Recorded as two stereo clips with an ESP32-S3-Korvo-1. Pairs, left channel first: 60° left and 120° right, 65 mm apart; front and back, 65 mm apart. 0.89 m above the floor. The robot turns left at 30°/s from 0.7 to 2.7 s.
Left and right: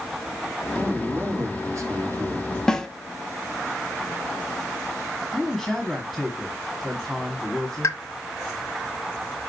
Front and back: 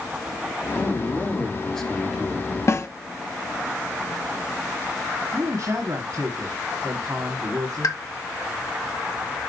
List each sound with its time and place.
0.8 s a man speaking: 55° right, 2.5 m; by 2.6 s 110° right, 2.5 m
2.7 s a snare drum: 15° right, 0.9 m
5.3 s a man speaking: 150° left, 1.6 m
7.8 s a pop: 20° left, 1.5 m